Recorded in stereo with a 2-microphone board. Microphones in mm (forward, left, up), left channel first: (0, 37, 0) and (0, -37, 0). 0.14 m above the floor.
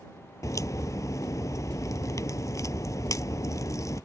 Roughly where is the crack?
Left.